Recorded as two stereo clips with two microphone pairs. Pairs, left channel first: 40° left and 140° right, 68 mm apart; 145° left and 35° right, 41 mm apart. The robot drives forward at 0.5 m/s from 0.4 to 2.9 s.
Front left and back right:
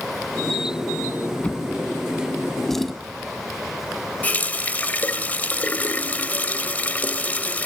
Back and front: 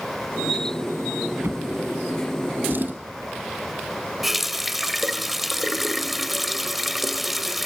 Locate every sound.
1.4 s a drawer: 30° right, 1.8 m; by 2.9 s 50° right, 1.3 m
4.2 s a running tap: 40° left, 0.8 m